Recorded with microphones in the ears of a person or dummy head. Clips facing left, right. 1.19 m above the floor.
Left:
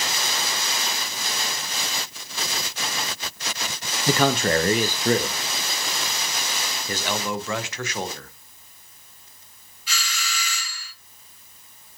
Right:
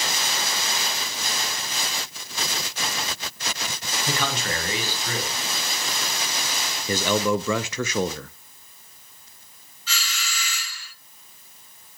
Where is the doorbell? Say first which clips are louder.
Left 1 dB; 10° left (ahead or behind), 4.5 m.